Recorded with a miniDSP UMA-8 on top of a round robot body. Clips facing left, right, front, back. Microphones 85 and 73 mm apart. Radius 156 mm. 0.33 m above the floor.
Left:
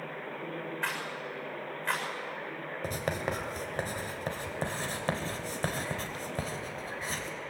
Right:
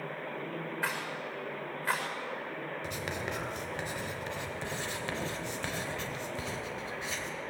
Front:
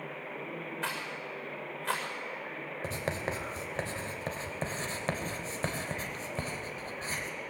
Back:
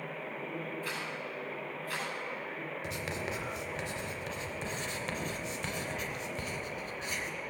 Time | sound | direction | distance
0.8 | a rattle | 5° right | 6.5 m
2.8 | writing | 45° left | 3 m